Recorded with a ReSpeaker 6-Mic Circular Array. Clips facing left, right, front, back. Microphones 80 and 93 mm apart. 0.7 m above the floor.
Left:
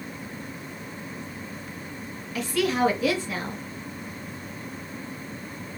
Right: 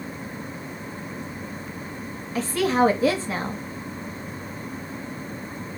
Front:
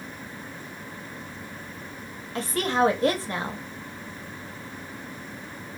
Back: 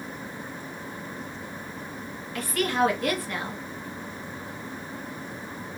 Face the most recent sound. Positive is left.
turn(degrees=-50)